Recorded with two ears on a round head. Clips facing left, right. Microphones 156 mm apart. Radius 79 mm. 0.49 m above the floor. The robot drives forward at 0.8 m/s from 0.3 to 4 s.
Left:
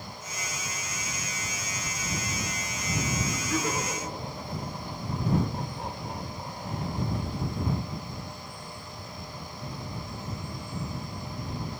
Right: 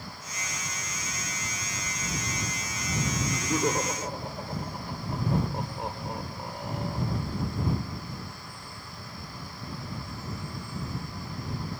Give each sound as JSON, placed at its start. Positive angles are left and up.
{"t": 3.2, "sound": "laughter", "side_deg": -25, "distance_m": 0.9}